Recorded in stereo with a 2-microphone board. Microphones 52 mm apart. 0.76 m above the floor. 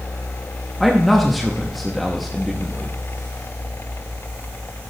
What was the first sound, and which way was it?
A man speaking, centre (ahead or behind).